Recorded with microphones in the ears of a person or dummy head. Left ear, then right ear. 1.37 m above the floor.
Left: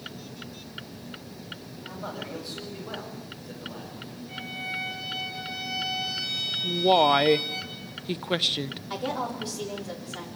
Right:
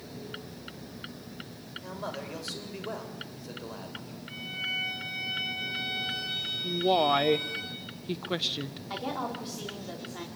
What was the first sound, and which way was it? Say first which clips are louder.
A man speaking: even; 80° right.